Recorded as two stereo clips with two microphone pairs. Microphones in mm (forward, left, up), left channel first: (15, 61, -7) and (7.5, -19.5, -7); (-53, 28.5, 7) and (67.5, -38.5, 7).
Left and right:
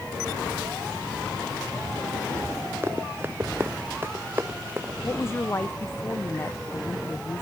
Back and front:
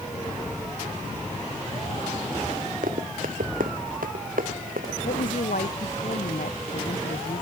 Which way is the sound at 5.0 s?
145° left.